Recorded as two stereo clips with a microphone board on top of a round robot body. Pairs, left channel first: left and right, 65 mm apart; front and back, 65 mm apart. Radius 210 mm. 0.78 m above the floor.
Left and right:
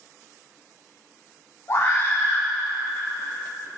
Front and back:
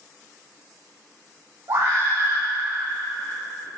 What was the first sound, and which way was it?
A scream, 145° left.